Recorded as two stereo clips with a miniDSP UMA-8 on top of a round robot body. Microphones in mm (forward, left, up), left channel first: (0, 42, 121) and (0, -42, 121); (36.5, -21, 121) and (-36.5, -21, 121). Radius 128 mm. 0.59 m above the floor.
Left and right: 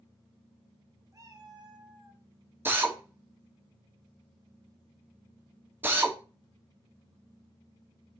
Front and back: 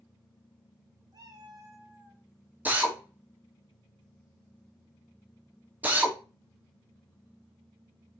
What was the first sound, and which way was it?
A cat meowing, 145° right.